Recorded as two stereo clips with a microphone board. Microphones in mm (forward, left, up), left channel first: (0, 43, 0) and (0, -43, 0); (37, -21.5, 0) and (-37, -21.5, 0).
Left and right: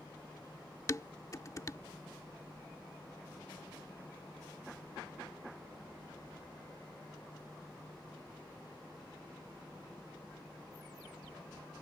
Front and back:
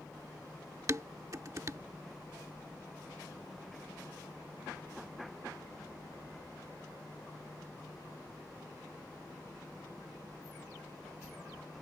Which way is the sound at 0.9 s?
140° left.